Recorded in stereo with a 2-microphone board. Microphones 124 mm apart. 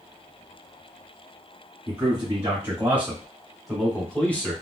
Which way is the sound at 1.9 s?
30° right (ahead or behind).